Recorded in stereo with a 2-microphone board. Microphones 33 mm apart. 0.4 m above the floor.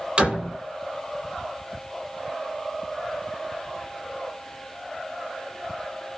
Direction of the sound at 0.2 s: 35° right (ahead or behind).